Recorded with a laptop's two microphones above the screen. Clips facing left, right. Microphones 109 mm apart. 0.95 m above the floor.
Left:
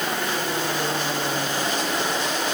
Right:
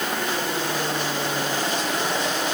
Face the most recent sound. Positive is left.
No sound to turn to.